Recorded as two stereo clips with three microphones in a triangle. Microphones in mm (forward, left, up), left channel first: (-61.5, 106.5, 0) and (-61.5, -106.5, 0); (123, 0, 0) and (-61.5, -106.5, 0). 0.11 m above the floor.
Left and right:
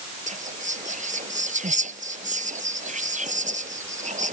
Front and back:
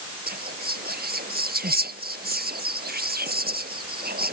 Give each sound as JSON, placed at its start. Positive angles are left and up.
{"t": 0.3, "sound": "whispering", "azimuth_deg": -130}